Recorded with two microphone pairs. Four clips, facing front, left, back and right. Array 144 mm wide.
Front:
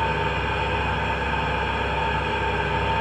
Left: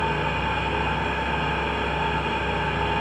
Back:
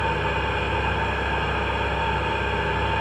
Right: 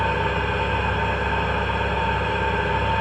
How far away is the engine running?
About 1.9 m.